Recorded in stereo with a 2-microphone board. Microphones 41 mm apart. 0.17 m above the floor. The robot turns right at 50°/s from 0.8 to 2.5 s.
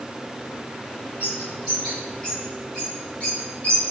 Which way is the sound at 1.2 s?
45° right (ahead or behind).